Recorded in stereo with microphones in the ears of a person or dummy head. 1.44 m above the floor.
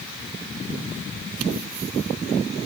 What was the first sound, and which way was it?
Only background noise.